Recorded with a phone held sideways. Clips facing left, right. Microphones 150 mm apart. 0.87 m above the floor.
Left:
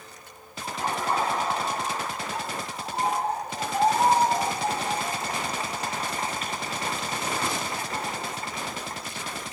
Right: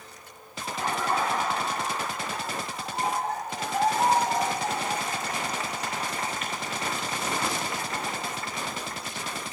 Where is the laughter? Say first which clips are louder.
Even; 35° left (ahead or behind), 3.5 m.